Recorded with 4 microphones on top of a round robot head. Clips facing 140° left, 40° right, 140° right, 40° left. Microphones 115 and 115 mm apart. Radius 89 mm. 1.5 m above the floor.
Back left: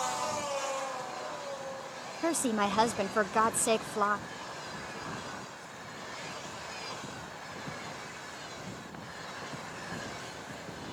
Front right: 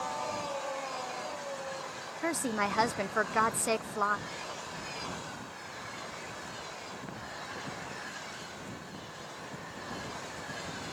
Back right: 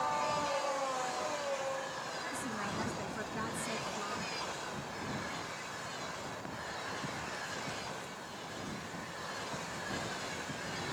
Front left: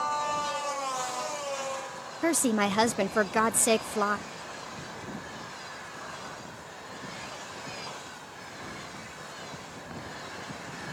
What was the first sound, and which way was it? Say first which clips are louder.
A woman speaking: back left 3 dB, front left 18 dB; 60° left.